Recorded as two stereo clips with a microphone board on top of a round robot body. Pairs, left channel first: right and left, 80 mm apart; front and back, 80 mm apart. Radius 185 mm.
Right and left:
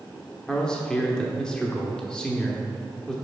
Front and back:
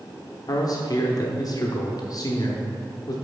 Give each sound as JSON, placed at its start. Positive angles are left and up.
{"t": 0.5, "sound": "a man speaking", "azimuth_deg": -15, "distance_m": 1.1}